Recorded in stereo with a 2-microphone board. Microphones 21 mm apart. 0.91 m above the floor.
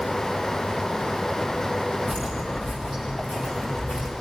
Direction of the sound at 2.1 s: 50° left (ahead or behind).